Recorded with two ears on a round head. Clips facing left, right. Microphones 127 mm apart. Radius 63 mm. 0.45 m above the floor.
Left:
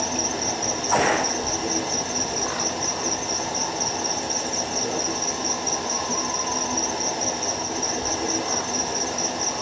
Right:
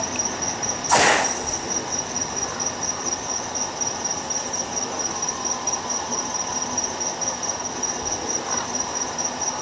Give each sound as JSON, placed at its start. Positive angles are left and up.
{"t": 0.0, "sound": "an insect", "side_deg": 45, "distance_m": 1.1}